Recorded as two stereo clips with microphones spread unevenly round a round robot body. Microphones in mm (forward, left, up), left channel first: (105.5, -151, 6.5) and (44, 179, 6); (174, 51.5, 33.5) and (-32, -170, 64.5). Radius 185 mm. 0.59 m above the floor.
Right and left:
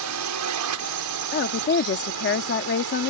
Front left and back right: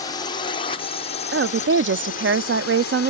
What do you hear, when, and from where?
0.0 s a drone: 120° left; by 3.1 s 90° left
1.3 s a woman speaking: 105° right